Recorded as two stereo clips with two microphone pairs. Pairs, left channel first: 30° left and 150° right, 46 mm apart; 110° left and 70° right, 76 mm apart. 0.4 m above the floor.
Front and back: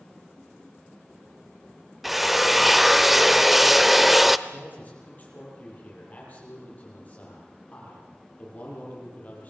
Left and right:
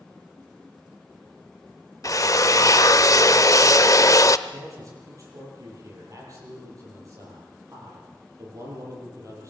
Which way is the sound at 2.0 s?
125° left.